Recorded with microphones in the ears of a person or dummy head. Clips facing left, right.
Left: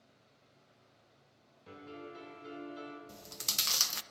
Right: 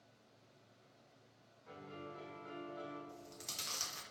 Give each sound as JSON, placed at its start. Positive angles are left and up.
{"t": 1.7, "sound": "a piano", "side_deg": 45, "distance_m": 6.5}
{"t": 3.1, "sound": "chewing", "side_deg": 75, "distance_m": 0.7}